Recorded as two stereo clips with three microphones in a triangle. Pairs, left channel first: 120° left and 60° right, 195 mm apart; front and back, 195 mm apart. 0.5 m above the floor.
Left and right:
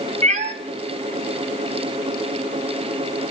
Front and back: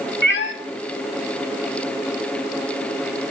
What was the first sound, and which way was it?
A cat meowing, 15° right.